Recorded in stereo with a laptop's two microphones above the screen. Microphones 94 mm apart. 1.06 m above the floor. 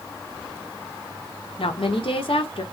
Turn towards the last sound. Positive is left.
turn(degrees=70)  # may be behind; listen again after turning